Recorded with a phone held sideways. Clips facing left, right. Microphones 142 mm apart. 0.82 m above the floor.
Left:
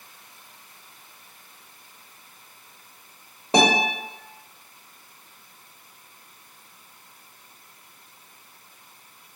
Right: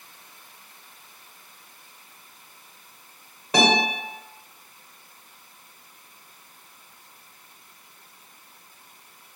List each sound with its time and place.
3.5 s a guitar: 30° left (ahead or behind), 0.9 m